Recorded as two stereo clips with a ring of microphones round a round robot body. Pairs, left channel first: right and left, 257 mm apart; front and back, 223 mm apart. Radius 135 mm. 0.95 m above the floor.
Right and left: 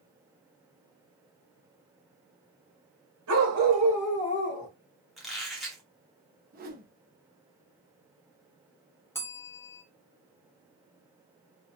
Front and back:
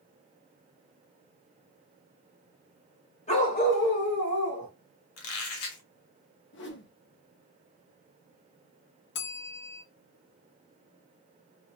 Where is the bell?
10° right, 0.7 m.